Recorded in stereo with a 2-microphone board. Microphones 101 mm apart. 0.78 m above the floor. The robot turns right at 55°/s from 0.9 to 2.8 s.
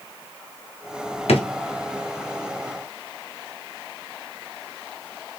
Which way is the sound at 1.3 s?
80° left.